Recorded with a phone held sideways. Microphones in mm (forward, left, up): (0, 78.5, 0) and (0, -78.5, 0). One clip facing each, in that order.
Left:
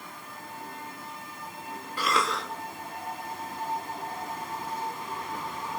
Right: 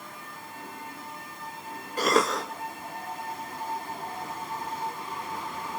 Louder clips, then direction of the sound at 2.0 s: Right 5 dB; 40° right (ahead or behind).